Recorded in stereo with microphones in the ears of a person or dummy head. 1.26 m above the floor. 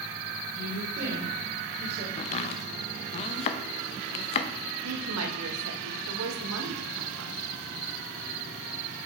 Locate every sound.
0.5 s a woman speaking: 60° right (ahead or behind), 3.5 m; by 2.1 s 45° right (ahead or behind), 2.5 m
2.2 s chopping: 35° left (ahead or behind), 0.6 m
4.8 s a woman speaking: 80° right, 1.4 m